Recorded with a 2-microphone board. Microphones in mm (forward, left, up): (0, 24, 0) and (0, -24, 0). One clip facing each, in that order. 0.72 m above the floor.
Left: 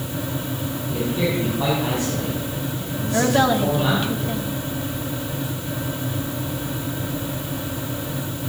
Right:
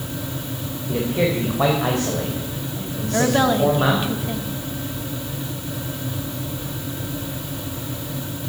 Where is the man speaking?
75° right (ahead or behind), 4 m.